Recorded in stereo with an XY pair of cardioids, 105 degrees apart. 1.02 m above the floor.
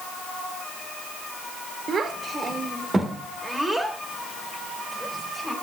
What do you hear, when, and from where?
1.9 s a child speaking: 50° right, 1.7 m; by 5.5 s 5° left, 3.5 m